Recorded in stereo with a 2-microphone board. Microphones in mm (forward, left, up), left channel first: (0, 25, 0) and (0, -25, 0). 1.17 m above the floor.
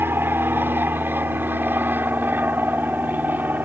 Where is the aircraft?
45° right (ahead or behind); by 3.6 s 40° right (ahead or behind).